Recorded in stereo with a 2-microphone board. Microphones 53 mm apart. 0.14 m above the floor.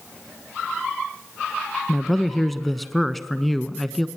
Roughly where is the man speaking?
Centre.